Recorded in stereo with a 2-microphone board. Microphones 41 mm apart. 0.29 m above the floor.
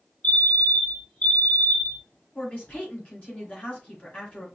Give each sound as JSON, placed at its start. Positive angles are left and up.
{"t": 0.2, "sound": "a fire alarm", "side_deg": 30, "distance_m": 2.5}
{"t": 2.4, "sound": "a woman speaking", "side_deg": 35, "distance_m": 3.5}